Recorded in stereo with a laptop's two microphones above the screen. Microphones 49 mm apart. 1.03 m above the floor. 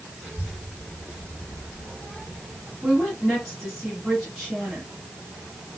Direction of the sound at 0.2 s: 10° right (ahead or behind).